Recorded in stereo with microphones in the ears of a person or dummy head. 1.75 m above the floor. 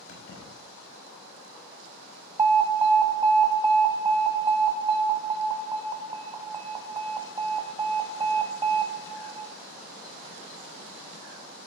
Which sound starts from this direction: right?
An alarm, at 2.4 s.